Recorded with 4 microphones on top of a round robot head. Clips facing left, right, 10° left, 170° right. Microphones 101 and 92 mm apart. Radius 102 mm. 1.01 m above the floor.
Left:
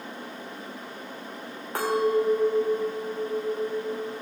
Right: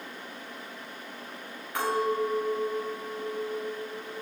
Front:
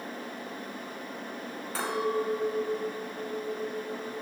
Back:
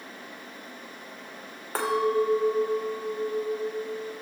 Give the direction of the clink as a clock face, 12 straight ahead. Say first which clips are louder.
Left 4 dB, back 5 dB; 7 o'clock.